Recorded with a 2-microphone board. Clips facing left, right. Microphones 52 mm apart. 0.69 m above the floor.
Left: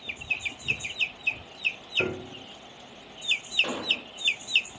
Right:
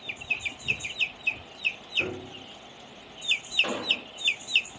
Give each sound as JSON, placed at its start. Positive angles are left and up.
{"t": 2.0, "sound": "a piano", "side_deg": 35, "distance_m": 1.5}
{"t": 3.6, "sound": "an explosion", "side_deg": -15, "distance_m": 1.2}